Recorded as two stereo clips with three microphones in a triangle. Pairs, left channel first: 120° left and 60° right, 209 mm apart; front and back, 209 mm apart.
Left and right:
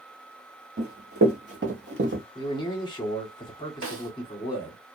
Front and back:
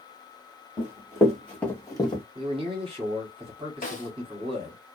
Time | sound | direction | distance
0.8 | running footsteps | 95° right | 1.6 m
2.4 | a man speaking | 155° left | 1.1 m
3.8 | a snare drum | 55° right | 0.8 m